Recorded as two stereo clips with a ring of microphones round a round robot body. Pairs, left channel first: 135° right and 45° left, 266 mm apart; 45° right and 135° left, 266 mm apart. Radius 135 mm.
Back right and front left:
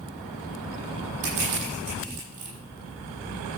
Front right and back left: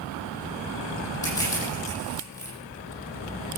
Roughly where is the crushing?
Ahead left.